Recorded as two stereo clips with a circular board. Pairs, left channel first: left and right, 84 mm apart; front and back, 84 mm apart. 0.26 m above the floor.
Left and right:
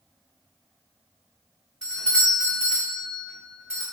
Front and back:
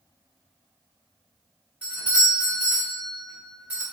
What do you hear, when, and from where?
1.8 s a doorbell: 145° left, 1.6 m